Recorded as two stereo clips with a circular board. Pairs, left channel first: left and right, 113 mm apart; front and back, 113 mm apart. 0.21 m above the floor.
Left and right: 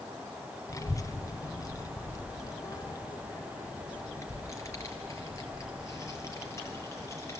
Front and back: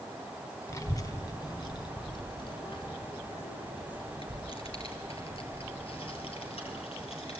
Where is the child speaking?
45° left, 1.3 m; by 7.4 s 25° left, 4.5 m.